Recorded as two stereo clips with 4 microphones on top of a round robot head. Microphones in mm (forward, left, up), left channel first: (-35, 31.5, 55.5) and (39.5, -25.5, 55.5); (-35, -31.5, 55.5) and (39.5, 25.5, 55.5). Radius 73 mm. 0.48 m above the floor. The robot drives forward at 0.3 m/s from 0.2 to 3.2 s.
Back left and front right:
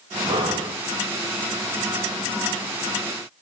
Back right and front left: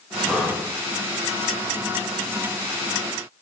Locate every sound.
0.3 s breathing: 40° right, 1.1 m; by 0.7 s 50° right, 1.0 m